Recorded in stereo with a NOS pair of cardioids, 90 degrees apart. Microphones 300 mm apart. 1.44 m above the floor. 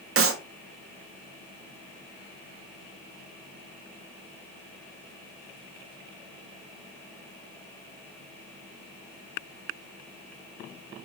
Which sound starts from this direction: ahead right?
A clap, at 0.2 s.